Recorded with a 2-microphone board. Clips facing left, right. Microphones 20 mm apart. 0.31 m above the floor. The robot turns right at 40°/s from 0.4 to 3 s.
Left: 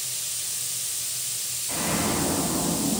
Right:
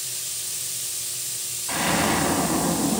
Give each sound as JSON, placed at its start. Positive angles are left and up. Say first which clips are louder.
{"t": 1.7, "sound": "an explosion", "louder": "right 5 dB", "azimuth_deg": -115, "distance_m": 0.7}